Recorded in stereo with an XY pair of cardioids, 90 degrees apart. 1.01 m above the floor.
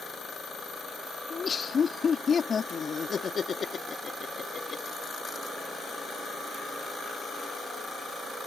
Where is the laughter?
45° left.